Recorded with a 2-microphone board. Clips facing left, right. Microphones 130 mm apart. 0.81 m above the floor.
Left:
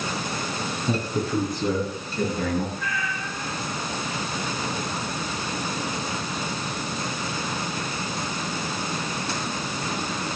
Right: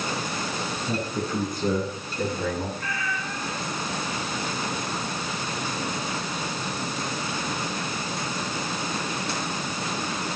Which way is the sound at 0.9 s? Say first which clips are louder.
Left 4 dB; 85° left.